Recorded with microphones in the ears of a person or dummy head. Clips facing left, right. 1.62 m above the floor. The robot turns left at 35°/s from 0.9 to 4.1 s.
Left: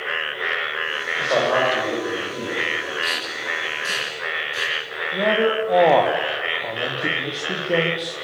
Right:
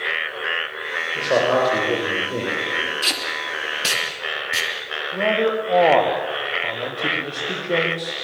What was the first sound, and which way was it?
A man speaking, 20° right.